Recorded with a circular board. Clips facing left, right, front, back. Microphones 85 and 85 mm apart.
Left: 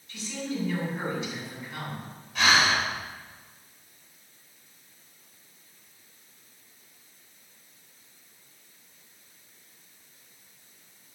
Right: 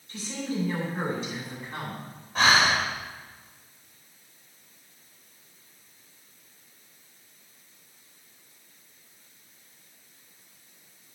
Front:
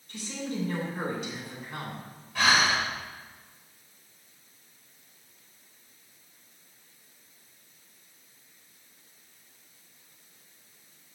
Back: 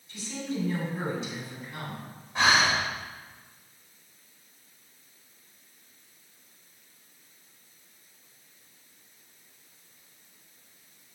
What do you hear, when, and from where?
0.1 s a woman speaking: 35° right, 4 m
2.4 s breathing: 120° right, 2 m